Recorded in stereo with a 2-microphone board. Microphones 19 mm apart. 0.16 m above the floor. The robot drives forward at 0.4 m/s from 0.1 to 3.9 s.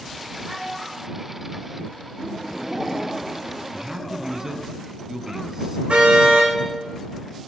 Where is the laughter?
40° right (ahead or behind), 4.5 m.